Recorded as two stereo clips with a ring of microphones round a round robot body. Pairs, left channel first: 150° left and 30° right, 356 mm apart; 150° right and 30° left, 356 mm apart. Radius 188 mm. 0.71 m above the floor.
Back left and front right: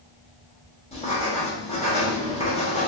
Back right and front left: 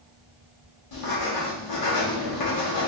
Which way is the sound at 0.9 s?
140° right.